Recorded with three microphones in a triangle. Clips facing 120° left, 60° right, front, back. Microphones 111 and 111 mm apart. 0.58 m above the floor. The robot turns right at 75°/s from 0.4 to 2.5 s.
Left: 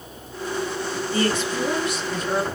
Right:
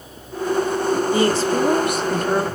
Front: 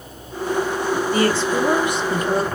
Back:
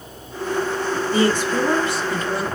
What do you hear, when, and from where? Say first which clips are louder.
1.1 s a woman speaking: right 2 dB, back 1 dB; 125° right, 1.4 m; by 2.5 s 30° right, 1.4 m